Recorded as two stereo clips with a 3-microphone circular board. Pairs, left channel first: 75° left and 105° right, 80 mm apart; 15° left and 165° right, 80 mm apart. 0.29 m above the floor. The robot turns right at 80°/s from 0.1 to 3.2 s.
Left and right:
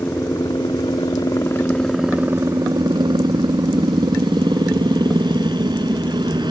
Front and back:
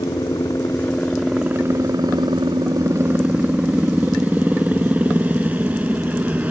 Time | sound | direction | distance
0.0 | a helicopter | 15° left | ?